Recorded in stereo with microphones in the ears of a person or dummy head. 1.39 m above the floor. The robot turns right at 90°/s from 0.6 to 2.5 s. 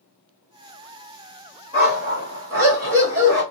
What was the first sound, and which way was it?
A dog barking, 150° right.